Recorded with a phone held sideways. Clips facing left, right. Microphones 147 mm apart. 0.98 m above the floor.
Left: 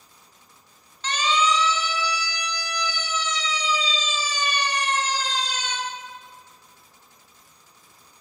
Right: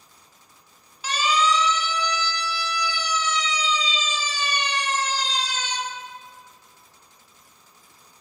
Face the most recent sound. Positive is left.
turn(degrees=55)  # may be behind; listen again after turning